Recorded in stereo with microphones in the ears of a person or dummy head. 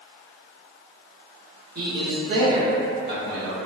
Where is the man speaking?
55° right (ahead or behind), 0.9 m; by 3.5 s 10° right (ahead or behind), 1.1 m.